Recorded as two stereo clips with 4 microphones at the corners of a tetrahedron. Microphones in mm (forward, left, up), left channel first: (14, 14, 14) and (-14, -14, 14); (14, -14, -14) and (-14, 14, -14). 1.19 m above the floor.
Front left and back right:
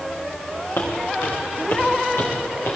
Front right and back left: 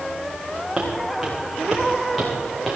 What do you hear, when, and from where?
0.8 s footsteps: 55° left, 6 m; by 2.8 s 40° left, 5.5 m